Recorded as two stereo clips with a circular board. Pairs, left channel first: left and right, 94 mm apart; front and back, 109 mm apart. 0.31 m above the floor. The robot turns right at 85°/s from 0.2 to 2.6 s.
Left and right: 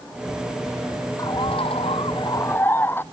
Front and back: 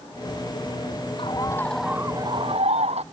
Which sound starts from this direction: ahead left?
A bird, at 1.2 s.